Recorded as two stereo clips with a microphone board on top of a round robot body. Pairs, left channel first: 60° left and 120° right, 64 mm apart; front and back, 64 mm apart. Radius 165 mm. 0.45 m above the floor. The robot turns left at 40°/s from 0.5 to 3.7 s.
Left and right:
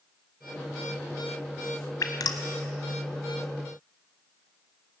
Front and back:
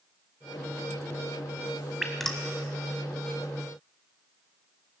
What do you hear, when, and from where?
2.0 s dripping: 95° left, 1.2 m; by 2.4 s 80° left, 1.2 m